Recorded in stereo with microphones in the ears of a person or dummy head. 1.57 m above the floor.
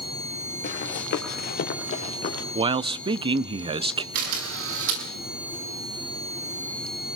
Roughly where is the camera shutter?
Right.